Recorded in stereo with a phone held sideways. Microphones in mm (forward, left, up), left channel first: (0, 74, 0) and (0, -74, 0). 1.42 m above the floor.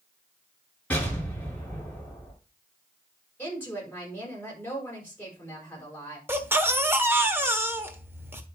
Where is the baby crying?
15° right (ahead or behind), 1.3 m.